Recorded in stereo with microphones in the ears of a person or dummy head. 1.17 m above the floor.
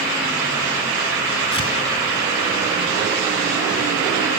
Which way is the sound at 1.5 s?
35° left (ahead or behind).